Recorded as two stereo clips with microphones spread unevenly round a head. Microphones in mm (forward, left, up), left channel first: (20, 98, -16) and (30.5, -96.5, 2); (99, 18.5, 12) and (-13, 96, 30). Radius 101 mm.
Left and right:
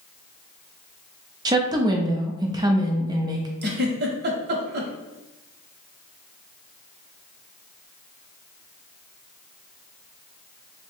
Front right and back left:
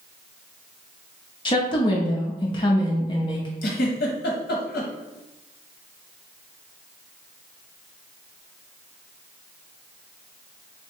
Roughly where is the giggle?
Ahead right.